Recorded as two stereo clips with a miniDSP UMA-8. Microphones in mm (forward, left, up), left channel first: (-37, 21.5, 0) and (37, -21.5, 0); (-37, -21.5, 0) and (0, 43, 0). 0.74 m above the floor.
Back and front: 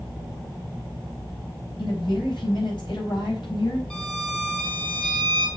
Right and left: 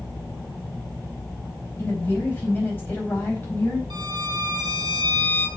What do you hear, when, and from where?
1.8 s a woman speaking: 175° left, 4.5 m
3.9 s a violin: 75° left, 3 m